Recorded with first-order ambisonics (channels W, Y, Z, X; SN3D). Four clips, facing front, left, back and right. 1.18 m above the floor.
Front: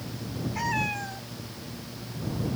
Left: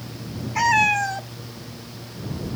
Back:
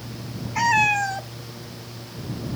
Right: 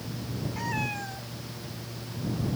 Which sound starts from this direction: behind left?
A cat meowing, at 0.6 s.